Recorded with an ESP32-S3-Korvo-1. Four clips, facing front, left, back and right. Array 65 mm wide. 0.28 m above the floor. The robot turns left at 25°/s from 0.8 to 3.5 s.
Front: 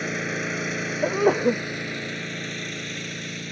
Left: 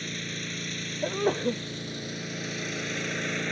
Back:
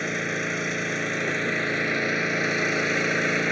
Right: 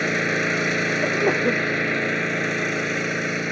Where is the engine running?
90° right; by 3.5 s 160° right.